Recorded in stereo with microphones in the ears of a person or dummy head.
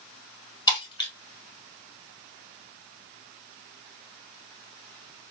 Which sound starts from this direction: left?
Breaking glass, at 0.7 s.